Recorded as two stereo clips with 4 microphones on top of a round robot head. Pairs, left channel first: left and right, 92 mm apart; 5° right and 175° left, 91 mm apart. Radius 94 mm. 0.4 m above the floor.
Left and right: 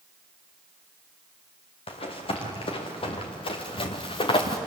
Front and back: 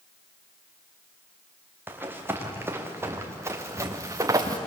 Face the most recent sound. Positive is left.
turn(degrees=120)